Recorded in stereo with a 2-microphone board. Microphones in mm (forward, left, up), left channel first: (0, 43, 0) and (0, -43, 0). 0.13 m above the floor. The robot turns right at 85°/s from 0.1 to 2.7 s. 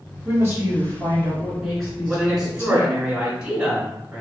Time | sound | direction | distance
0.2 | a woman speaking | 130° right | 1.7 m
2.1 | a man speaking | 10° left (ahead or behind) | 1.1 m